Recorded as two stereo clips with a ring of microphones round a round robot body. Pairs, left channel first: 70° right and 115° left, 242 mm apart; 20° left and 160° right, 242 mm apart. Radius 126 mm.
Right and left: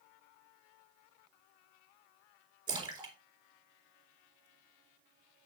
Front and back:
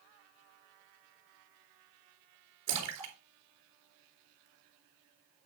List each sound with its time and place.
2.7 s a splash: 175° right, 3 m